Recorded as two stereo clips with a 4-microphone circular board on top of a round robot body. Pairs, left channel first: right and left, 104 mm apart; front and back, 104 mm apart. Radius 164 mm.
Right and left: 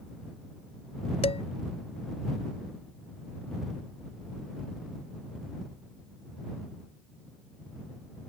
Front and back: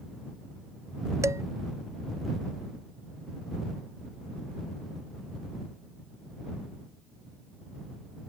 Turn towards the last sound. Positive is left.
turn(degrees=-115)